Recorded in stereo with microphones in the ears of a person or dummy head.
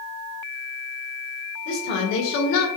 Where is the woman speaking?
60° left (ahead or behind), 1.6 m; by 2.7 s 65° left (ahead or behind), 1.4 m.